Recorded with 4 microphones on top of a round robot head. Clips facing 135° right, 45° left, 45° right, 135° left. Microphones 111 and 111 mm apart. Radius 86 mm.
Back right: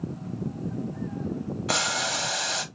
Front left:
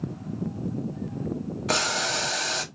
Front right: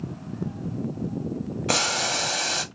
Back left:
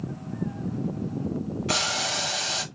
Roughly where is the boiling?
Ahead right.